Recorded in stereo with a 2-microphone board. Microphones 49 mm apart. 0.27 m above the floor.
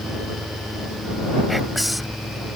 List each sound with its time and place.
1.5 s whispering: centre (ahead or behind)